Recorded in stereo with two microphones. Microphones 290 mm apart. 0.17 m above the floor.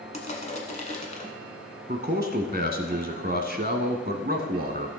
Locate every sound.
0.1 s crushing: 25° left (ahead or behind), 1.6 m
1.9 s a man speaking: 35° right (ahead or behind), 1.2 m